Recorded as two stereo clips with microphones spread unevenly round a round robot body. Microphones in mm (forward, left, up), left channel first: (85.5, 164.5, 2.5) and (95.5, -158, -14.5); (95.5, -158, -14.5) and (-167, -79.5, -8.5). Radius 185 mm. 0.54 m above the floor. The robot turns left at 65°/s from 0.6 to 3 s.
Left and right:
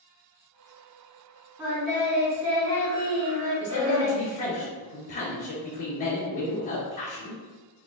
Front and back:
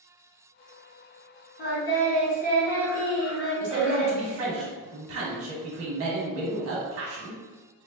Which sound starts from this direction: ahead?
Singing, at 1.6 s.